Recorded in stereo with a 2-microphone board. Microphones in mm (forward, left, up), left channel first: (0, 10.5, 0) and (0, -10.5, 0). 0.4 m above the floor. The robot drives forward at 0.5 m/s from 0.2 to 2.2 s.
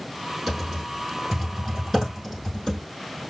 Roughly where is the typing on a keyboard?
Centre.